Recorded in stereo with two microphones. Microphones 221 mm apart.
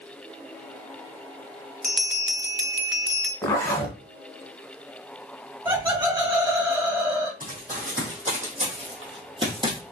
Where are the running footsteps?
40° right (ahead or behind), 2.5 m; by 9.8 s 20° right (ahead or behind), 1.8 m.